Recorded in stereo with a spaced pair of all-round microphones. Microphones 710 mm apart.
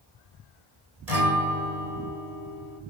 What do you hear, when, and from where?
1.1 s a guitar: 60° right (ahead or behind), 3 m